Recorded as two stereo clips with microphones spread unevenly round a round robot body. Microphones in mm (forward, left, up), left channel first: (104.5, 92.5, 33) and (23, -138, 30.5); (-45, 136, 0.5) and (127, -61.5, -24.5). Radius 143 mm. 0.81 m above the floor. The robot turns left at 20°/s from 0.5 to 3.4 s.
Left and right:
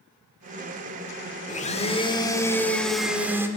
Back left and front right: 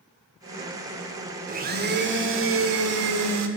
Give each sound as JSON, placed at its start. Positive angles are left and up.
{"t": 1.5, "sound": "a blender", "azimuth_deg": 10, "distance_m": 1.5}